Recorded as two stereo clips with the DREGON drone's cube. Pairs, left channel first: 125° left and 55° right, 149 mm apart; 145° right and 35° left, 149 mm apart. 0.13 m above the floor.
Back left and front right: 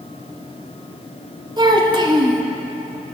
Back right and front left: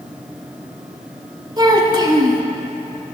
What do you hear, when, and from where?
1.6 s a child speaking: 15° right, 0.8 m